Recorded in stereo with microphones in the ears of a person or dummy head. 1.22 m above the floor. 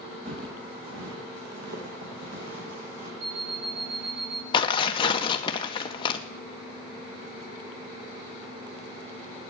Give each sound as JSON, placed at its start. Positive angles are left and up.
{"t": 0.2, "sound": "footsteps", "side_deg": -70, "distance_m": 3.5}
{"t": 3.2, "sound": "an alarm clock", "side_deg": -80, "distance_m": 3.0}
{"t": 4.5, "sound": "tearing paper", "side_deg": 25, "distance_m": 1.0}